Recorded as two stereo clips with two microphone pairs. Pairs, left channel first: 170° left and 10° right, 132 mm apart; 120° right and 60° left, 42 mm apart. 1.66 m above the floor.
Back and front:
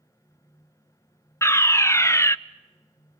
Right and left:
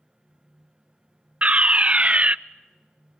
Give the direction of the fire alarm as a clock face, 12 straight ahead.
8 o'clock.